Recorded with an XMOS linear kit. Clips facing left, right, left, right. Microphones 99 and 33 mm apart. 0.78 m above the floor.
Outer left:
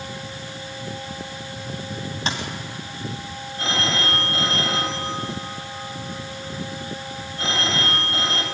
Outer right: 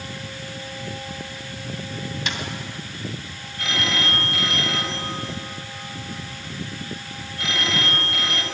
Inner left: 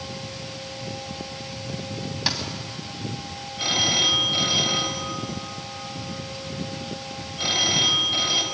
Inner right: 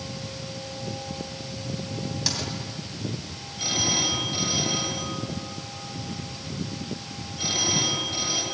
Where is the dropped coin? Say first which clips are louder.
Outer left 4 dB, inner left 4 dB; 35° left (ahead or behind), 3 m.